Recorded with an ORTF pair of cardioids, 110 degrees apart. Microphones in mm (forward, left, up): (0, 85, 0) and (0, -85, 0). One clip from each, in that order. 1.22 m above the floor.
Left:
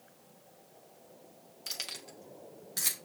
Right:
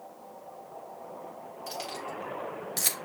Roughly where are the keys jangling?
Ahead left.